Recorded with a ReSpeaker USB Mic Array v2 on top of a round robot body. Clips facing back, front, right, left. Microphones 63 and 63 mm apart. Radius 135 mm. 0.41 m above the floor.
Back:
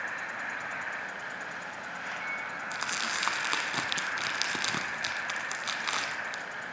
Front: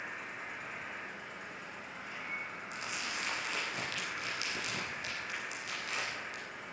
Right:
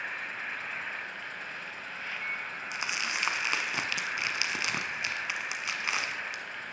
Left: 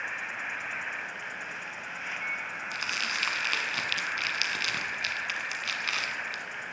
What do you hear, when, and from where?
0.0 s an insect: 165° left, 1.2 m
2.7 s crumpling: 160° right, 1.4 m